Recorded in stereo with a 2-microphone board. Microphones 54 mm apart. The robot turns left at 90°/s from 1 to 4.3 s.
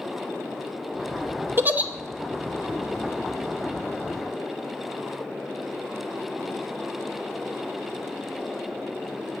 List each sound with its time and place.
1.6 s a giggle: 40° right (ahead or behind), 0.7 m; by 1.9 s 20° right (ahead or behind), 0.7 m